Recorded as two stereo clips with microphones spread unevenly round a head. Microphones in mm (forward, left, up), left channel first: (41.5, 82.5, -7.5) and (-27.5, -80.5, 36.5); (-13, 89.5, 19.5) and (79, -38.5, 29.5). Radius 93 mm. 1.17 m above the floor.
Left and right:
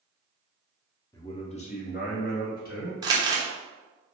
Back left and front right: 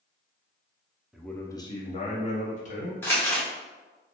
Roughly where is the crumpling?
Behind right.